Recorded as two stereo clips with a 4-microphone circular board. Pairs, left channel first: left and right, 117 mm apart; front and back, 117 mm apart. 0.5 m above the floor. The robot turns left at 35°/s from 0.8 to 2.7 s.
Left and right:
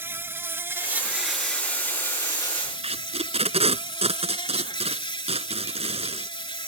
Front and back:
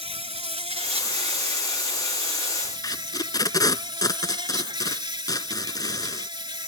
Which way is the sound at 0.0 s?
160° right.